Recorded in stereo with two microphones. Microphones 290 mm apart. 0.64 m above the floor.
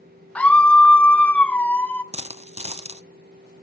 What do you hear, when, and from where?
0.3 s a scream: 5° left (ahead or behind), 0.6 m
2.1 s a dropped coin: 20° right (ahead or behind), 0.7 m